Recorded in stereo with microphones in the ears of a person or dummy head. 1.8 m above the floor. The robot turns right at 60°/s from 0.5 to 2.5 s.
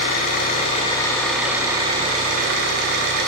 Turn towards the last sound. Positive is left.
turn(degrees=-115)